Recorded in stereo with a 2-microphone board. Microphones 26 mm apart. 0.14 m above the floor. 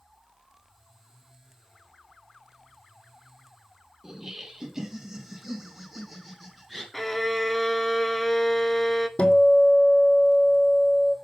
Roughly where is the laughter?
Right.